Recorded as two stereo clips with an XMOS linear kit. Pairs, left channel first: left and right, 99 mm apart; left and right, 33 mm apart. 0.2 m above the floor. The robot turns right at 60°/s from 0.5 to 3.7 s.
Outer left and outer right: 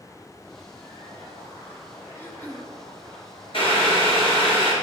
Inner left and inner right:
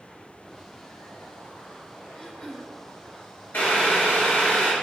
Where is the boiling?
65° left (ahead or behind), 2.5 m; by 4.7 s 60° left (ahead or behind), 2.5 m.